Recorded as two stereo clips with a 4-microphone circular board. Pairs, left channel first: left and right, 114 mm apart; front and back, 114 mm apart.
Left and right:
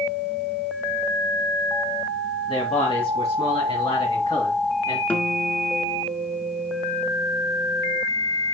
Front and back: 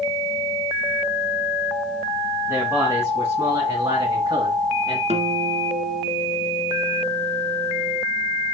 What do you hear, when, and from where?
2.5 s a man speaking: 115° left, 2.5 m; by 5.0 s 135° left, 3.5 m
5.1 s a guitar: 165° left, 1.4 m